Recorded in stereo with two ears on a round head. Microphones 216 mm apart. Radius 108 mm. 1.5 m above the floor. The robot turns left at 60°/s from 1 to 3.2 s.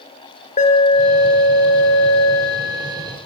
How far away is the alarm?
About 4 m.